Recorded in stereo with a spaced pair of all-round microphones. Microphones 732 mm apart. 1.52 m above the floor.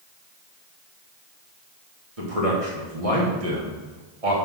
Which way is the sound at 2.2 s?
50° right (ahead or behind).